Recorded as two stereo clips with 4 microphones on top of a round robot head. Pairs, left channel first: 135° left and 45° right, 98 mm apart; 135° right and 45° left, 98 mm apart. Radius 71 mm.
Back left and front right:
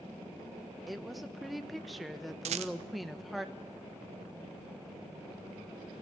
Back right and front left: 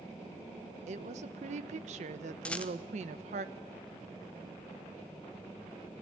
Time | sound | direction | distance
0.9 | a woman speaking | 45° left | 1.1 m
2.5 | a rattle | 55° right | 1.0 m